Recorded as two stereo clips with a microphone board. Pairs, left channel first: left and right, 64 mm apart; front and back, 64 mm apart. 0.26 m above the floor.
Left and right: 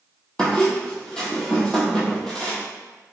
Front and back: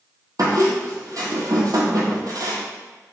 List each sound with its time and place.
0.4 s a squeak: 170° left, 0.8 m